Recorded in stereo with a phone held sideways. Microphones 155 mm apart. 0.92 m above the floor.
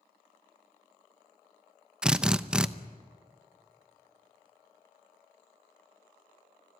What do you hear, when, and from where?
2.0 s a drill: 5° right (ahead or behind), 0.7 m